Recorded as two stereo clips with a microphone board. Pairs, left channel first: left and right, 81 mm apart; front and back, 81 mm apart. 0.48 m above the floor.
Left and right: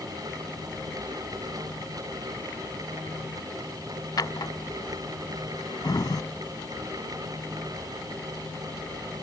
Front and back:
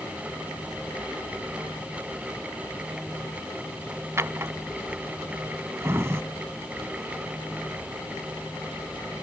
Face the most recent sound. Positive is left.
turn(degrees=125)